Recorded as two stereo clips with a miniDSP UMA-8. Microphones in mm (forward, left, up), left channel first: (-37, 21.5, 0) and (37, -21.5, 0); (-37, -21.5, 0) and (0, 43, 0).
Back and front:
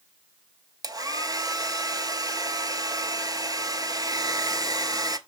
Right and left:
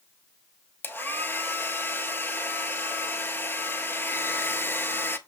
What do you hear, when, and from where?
0.8 s a hair dryer: 65° right, 0.6 m